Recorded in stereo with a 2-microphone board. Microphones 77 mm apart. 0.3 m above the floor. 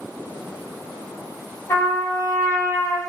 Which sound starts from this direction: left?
A trumpet, at 1.7 s.